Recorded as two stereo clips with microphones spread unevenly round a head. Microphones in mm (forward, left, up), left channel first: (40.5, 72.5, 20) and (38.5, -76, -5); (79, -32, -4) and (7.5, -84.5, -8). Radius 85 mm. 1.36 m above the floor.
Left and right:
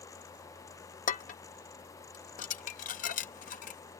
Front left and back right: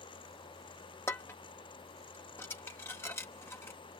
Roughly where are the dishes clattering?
Left.